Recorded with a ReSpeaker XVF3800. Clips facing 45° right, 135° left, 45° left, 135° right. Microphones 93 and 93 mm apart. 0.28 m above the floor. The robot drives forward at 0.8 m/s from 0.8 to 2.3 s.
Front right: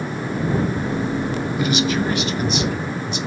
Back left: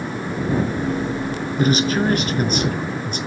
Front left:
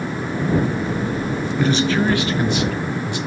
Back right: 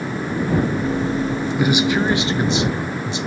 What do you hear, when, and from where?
1.6 s a man speaking: 150° left, 1.5 m; by 3.2 s 165° left, 1.9 m